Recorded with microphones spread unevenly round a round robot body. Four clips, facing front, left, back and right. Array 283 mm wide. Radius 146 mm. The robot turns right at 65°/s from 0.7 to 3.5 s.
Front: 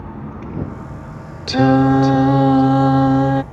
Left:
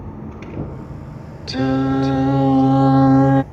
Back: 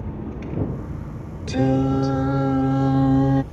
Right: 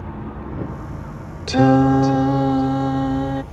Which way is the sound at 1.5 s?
45° right.